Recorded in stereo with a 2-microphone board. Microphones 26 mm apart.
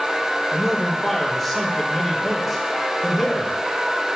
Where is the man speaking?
5° left (ahead or behind), 1.5 m.